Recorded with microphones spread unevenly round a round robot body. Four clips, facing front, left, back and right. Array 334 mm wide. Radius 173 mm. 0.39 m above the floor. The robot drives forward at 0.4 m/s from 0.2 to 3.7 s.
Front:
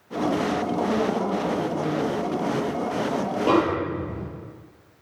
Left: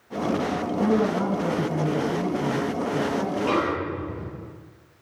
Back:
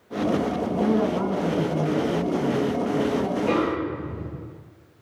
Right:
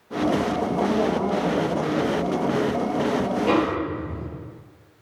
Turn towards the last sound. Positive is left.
turn(degrees=-5)